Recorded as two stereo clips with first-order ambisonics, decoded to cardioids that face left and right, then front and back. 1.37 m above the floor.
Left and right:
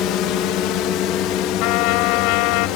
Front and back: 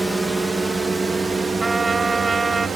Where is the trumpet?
100° left.